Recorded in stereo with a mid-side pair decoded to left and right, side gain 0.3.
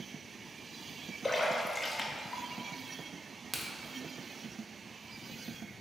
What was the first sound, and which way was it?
A splash, 35° left.